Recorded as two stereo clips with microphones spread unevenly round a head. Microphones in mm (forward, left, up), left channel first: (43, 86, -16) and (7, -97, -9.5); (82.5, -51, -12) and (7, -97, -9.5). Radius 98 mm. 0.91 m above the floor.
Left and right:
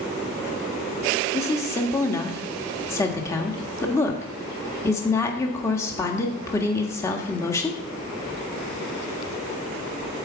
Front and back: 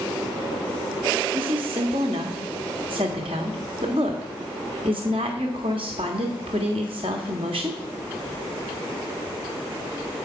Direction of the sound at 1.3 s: 155° left.